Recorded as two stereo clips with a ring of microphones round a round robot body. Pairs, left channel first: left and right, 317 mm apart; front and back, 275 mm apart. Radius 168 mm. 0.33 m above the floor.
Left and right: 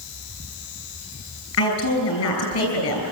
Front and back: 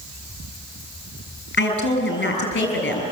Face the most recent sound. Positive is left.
turn(degrees=50)